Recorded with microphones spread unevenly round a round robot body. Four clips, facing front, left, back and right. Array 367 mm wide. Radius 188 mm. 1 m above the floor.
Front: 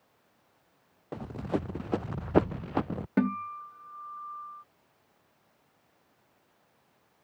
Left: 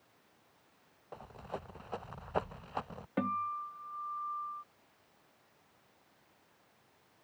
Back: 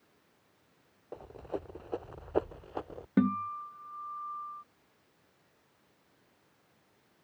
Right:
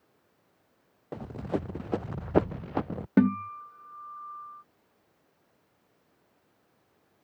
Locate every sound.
1.1 s running footsteps: 40° right; by 3.1 s 30° right
3.2 s a guitar: 95° right